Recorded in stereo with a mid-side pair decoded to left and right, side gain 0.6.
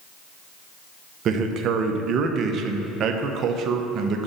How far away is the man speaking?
About 1.0 m.